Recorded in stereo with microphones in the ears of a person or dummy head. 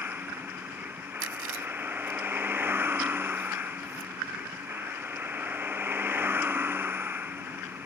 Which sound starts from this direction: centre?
A vehicle, at 0.0 s.